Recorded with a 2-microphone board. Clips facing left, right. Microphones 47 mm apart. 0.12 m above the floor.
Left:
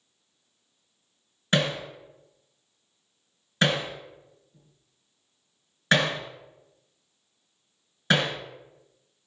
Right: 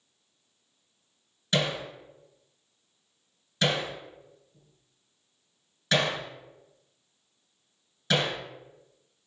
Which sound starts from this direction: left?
Hammering, at 1.5 s.